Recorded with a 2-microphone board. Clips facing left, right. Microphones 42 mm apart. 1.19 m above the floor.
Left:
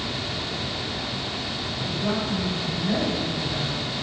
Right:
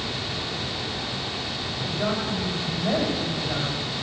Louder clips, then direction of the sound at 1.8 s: Even; 50° right (ahead or behind).